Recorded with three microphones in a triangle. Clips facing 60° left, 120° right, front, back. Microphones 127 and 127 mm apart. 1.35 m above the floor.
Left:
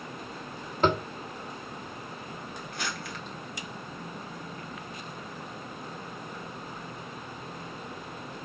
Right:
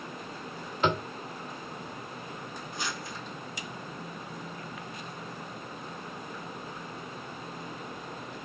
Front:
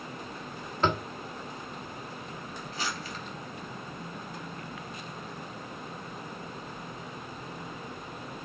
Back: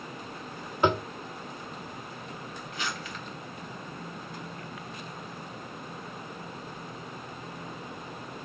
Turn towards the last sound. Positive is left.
turn(degrees=50)